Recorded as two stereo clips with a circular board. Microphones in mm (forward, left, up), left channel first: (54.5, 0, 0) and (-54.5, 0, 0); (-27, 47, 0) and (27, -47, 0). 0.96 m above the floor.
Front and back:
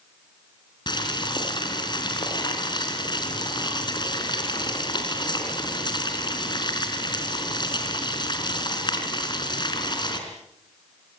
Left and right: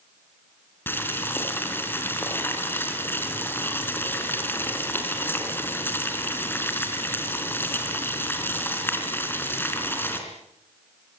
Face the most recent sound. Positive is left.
turn(degrees=50)